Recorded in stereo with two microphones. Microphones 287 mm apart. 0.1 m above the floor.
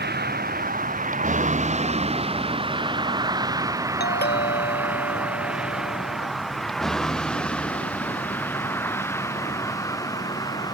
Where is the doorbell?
35° left (ahead or behind).